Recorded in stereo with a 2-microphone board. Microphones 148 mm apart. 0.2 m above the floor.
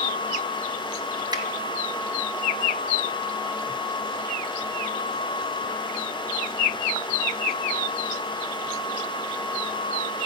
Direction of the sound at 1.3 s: 30° right (ahead or behind).